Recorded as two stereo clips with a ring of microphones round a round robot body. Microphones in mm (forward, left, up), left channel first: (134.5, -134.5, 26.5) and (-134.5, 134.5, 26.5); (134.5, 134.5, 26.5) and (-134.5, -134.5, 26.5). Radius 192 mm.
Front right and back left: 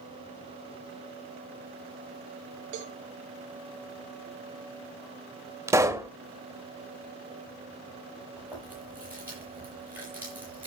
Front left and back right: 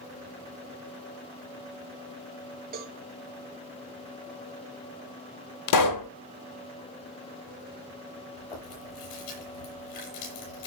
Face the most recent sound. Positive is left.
turn(degrees=50)